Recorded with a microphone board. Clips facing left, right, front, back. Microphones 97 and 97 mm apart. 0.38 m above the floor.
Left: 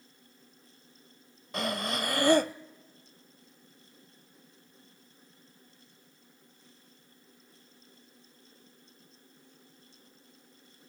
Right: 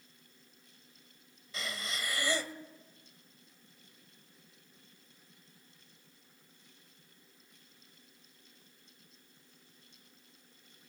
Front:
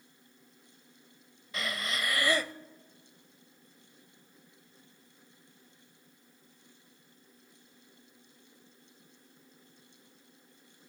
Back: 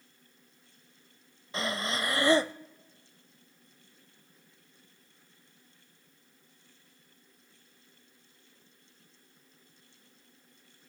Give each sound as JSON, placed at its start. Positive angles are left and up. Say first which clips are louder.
{"t": 1.5, "sound": "breathing", "louder": "left 9 dB, back 3 dB", "azimuth_deg": 120, "distance_m": 0.5}